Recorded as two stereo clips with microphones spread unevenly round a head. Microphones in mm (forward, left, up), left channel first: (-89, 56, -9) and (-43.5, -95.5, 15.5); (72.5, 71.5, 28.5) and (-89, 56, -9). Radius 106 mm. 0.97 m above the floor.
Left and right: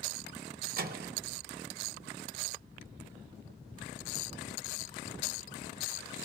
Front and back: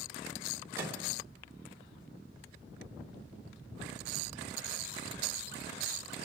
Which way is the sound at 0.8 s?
100° right.